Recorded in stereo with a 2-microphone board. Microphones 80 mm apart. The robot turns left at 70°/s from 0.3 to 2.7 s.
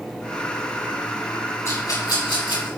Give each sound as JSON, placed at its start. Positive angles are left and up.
{"t": 1.6, "sound": "a rattle", "side_deg": 35, "distance_m": 5.5}